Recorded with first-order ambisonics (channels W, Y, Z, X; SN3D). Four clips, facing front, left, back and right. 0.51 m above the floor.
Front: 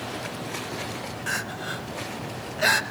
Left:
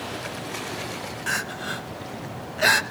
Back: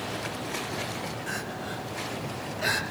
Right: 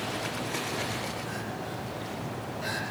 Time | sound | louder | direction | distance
1.3 | crying | left 8 dB, front 4 dB | 65° left | 0.9 m